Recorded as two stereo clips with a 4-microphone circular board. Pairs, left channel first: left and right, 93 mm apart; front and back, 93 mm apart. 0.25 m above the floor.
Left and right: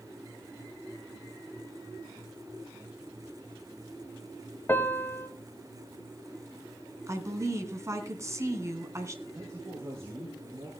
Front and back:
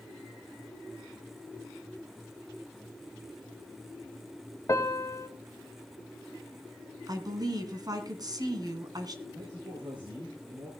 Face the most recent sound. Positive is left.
turn(degrees=-150)